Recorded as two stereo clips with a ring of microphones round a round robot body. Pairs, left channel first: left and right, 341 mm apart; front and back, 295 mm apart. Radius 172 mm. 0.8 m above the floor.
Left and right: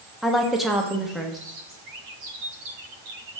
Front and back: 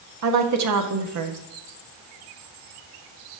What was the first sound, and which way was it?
A woman speaking, straight behind.